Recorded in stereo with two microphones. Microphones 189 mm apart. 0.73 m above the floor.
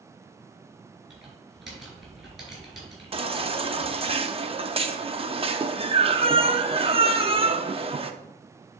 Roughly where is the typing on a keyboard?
Centre.